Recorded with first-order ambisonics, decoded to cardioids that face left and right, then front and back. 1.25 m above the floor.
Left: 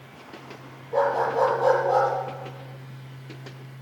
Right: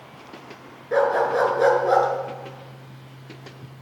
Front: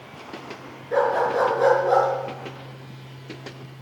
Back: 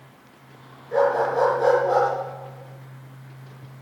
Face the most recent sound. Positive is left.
turn(degrees=-70)